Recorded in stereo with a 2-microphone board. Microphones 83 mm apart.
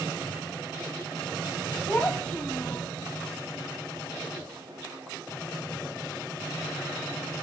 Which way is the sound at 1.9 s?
30° left (ahead or behind).